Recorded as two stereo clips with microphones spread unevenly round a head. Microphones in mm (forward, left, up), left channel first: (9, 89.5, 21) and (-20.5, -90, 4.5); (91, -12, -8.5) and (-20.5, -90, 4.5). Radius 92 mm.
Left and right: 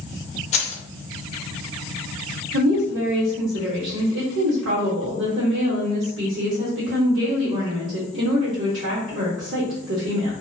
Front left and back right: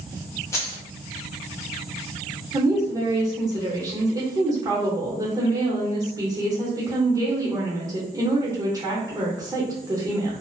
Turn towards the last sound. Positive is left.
turn(degrees=-75)